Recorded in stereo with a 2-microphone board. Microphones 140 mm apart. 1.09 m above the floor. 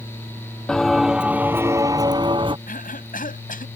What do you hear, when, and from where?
0.7 s footsteps: 5° left (ahead or behind); by 2.6 s 35° right (ahead or behind)
2.7 s a cough: 80° left